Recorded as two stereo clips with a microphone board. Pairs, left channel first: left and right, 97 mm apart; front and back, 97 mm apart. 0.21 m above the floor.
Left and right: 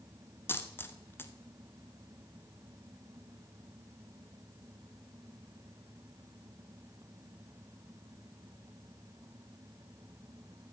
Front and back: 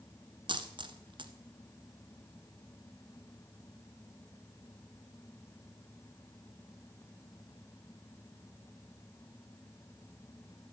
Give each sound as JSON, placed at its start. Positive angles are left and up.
{"t": 0.5, "sound": "a dropped coin", "azimuth_deg": 155, "distance_m": 1.4}